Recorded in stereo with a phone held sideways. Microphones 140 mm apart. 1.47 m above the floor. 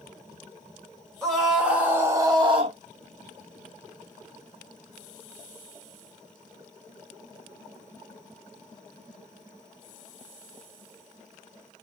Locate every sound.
1.2 s a scream: centre (ahead or behind), 1.1 m; by 2.8 s 45° right (ahead or behind), 0.7 m